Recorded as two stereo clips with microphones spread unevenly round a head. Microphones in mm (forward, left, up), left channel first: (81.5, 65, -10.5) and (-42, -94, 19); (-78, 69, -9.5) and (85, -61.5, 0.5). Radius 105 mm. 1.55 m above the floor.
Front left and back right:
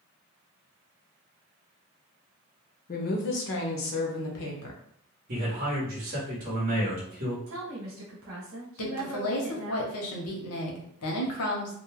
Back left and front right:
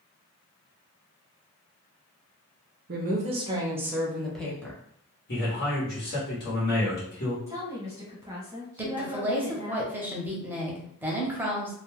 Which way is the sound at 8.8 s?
40° left.